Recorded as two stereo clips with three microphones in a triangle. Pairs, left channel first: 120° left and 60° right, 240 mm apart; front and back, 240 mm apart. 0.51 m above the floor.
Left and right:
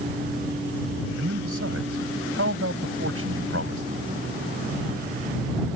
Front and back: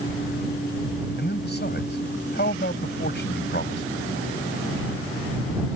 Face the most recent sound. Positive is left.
turn(degrees=-45)